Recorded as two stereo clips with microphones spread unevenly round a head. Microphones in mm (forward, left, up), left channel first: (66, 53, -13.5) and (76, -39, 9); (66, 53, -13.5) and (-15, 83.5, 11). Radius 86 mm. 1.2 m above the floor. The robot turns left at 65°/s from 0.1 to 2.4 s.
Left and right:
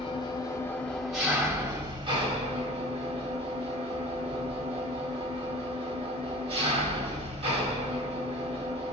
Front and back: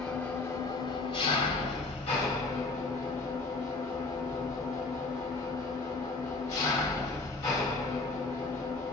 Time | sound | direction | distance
0.0 | an engine running | 65° left | 1.4 m